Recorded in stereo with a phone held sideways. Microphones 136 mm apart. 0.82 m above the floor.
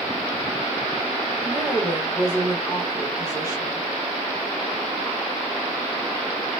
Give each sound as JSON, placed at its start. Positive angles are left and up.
{"t": 1.4, "sound": "a woman speaking", "side_deg": 30, "distance_m": 1.0}